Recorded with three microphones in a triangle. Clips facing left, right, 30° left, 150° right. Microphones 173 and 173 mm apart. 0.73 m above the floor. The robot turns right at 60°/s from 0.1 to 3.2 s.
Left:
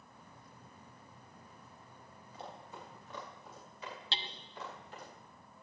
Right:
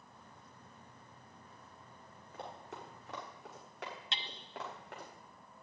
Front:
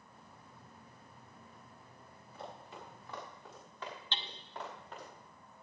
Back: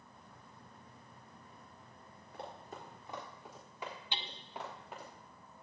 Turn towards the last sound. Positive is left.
turn(degrees=135)